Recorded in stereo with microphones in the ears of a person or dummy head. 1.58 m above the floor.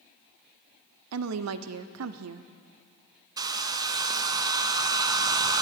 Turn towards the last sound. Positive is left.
turn(degrees=-20)  # may be behind; listen again after turning